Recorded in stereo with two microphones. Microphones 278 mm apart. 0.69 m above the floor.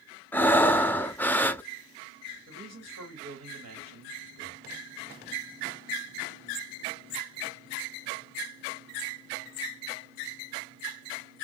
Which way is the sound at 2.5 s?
65° right (ahead or behind).